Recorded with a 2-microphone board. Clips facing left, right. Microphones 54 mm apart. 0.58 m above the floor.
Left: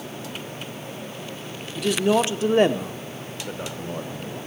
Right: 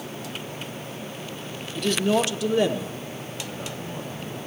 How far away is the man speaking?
About 1.1 m.